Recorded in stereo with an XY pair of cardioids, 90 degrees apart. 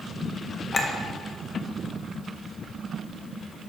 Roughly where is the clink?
Ahead left.